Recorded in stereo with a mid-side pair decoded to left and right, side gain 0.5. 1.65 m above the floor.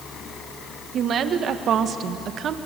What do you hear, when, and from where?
0.9 s a woman speaking: 55° right, 1.9 m